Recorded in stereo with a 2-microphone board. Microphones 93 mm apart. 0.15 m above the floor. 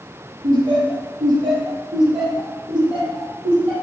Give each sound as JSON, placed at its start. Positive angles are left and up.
{"t": 0.4, "sound": "laughter", "side_deg": -60, "distance_m": 3.5}